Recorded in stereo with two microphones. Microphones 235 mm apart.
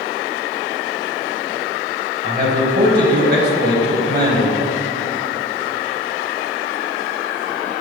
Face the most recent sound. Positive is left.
turn(degrees=-45)  # may be behind; listen again after turning